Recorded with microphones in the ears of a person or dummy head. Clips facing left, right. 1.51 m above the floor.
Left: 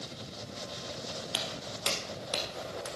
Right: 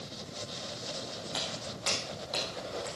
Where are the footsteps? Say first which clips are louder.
Even; 40° left (ahead or behind), 2.5 m.